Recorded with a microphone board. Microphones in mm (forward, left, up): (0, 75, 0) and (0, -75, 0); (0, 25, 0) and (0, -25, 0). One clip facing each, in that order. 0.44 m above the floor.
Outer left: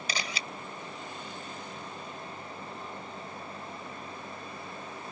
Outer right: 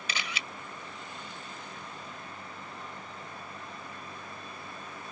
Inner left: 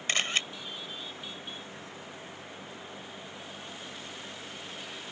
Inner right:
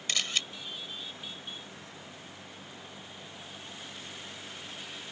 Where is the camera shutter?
35° left (ahead or behind).